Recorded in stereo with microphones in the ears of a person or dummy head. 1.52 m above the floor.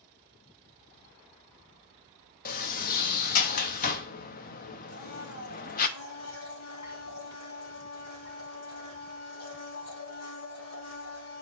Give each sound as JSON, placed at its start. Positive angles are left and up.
{"t": 2.5, "sound": "a sliding door", "side_deg": 45, "distance_m": 0.6}
{"t": 4.9, "sound": "a blender", "side_deg": 80, "distance_m": 1.5}